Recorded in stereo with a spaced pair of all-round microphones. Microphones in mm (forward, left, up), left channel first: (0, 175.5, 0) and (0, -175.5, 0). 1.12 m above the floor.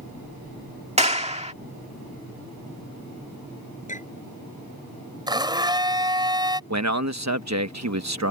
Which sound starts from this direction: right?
A man speaking, at 6.7 s.